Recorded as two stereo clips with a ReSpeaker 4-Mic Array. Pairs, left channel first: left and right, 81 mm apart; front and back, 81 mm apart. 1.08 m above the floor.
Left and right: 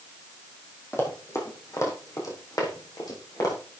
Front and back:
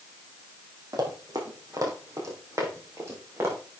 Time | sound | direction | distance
0.9 | running footsteps | 145° left | 3 m